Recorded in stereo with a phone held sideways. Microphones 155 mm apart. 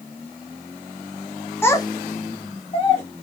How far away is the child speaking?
About 1.0 m.